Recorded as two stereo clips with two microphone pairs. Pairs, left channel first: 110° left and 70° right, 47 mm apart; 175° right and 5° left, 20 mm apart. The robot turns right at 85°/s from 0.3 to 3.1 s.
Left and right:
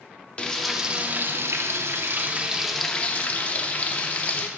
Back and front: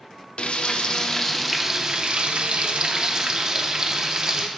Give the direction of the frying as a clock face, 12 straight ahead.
6 o'clock.